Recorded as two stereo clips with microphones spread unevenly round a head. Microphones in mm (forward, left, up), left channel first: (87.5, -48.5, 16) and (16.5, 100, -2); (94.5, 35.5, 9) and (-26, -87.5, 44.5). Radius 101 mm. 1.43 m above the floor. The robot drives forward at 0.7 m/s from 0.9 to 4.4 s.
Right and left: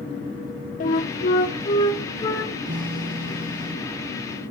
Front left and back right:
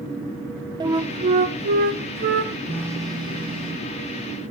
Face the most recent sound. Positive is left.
turn(degrees=170)